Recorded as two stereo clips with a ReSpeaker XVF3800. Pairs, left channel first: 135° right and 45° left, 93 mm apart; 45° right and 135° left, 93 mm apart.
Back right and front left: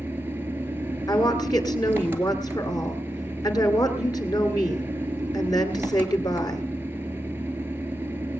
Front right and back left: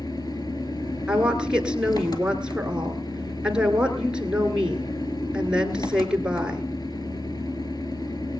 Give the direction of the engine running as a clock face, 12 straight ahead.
1 o'clock.